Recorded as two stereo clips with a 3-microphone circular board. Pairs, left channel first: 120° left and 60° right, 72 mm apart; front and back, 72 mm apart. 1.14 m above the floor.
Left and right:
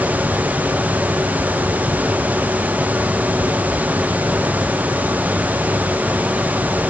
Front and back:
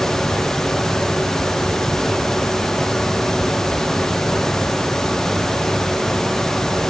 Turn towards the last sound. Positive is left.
No sound to turn to.